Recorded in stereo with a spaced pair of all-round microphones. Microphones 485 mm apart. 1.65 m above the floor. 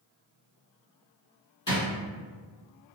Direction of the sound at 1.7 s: 40° left (ahead or behind).